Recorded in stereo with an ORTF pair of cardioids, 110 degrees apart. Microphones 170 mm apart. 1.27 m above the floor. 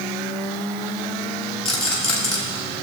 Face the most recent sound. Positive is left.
turn(degrees=40)